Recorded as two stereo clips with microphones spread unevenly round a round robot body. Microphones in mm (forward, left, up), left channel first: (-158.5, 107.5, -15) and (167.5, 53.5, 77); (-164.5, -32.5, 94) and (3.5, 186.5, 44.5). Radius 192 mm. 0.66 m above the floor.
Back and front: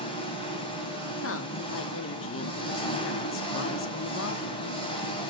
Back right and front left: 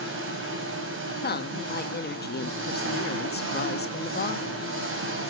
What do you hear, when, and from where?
0.0 s an engine running: 95° left, 3 m
1.2 s a woman speaking: 175° left, 1.0 m